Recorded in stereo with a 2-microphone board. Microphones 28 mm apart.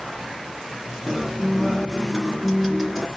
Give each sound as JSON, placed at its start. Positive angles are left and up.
{"t": 1.1, "sound": "a guitar", "side_deg": 5, "distance_m": 2.0}